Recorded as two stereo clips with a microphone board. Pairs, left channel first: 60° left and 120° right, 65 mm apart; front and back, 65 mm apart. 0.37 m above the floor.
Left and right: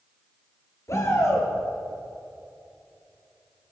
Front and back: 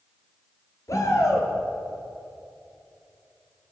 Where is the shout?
30° left, 6.5 m.